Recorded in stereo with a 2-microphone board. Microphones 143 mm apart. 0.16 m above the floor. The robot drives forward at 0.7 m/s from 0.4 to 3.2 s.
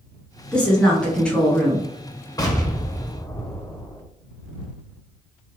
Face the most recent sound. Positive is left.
turn(degrees=25)  # may be behind; listen again after turning